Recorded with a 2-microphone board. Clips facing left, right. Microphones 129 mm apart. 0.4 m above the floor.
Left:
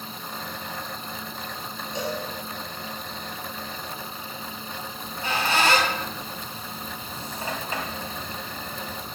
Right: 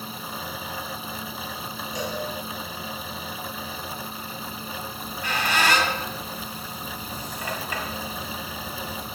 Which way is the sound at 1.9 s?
25° left (ahead or behind).